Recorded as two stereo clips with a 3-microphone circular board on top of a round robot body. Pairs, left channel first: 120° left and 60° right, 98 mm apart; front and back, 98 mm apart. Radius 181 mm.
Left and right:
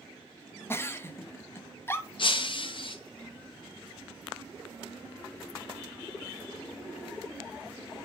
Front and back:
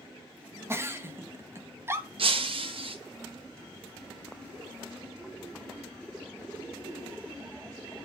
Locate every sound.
0.7 s a giggle: 155° left, 1.3 m
2.2 s breaking glass: 155° left, 1.3 m